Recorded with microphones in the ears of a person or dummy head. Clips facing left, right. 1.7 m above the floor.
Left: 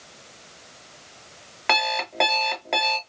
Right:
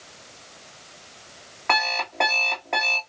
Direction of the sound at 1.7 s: 40° left (ahead or behind).